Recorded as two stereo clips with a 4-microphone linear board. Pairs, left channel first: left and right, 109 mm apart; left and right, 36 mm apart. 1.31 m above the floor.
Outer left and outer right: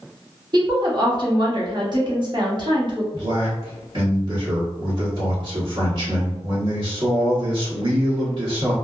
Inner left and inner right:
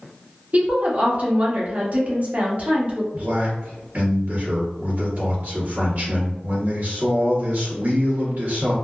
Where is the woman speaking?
45° right (ahead or behind), 0.8 m.